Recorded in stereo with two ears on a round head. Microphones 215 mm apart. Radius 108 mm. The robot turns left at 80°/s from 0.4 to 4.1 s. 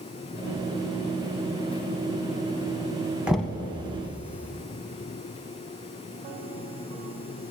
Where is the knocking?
5° right (ahead or behind), 0.8 m; by 3.6 s 20° left (ahead or behind), 0.8 m.